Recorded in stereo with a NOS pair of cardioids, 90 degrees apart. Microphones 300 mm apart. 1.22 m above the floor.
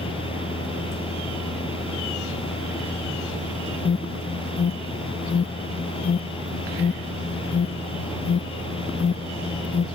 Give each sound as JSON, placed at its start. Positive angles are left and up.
{"t": 0.0, "sound": "a fan", "azimuth_deg": 15}
{"t": 3.9, "sound": "an alarm", "azimuth_deg": 35}